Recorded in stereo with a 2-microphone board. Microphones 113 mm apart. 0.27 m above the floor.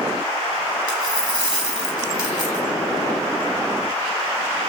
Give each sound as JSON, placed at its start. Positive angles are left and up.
{"t": 0.9, "sound": "a dropped coin", "side_deg": 10, "distance_m": 2.5}